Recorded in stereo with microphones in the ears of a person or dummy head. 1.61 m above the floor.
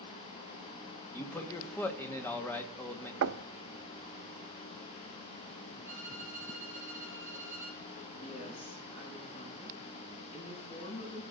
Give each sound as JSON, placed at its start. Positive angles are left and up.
{"t": 1.1, "sound": "a man speaking", "side_deg": 10, "distance_m": 1.4}
{"t": 3.2, "sound": "knocking", "side_deg": -70, "distance_m": 0.6}
{"t": 5.8, "sound": "a violin", "side_deg": -15, "distance_m": 9.0}
{"t": 8.1, "sound": "a woman speaking", "side_deg": 30, "distance_m": 8.5}